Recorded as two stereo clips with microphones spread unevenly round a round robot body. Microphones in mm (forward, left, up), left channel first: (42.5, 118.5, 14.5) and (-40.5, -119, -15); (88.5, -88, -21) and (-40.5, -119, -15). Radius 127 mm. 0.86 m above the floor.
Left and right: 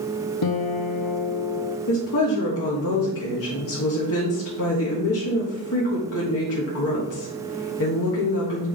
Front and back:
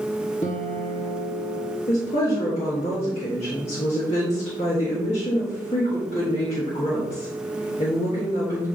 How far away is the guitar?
About 0.7 m.